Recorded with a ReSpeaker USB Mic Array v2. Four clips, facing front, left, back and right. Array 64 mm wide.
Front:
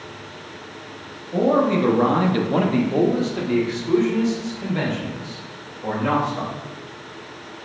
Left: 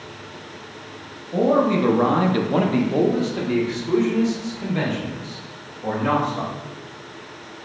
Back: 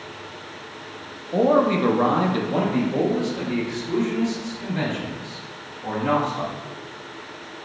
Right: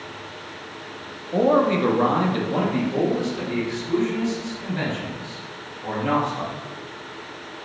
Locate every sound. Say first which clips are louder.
1.3 s a man speaking: even, even; 140° right, 0.6 m; by 6.5 s 45° left, 2.5 m